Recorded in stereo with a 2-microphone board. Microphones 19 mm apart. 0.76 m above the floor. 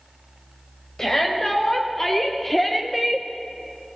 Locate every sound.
1.0 s a shout: 30° left (ahead or behind), 3.5 m; by 3.3 s 25° right (ahead or behind), 0.8 m